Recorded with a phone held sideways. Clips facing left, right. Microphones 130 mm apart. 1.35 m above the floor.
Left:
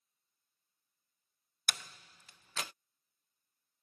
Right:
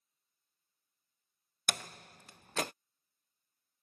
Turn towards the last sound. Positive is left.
turn(degrees=-55)  # may be behind; listen again after turning